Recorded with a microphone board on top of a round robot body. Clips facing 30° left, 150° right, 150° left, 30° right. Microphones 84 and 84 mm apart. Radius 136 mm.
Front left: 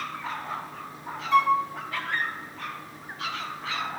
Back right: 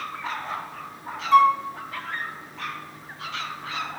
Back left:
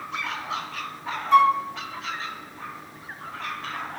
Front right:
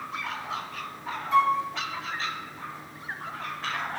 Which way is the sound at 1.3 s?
160° left.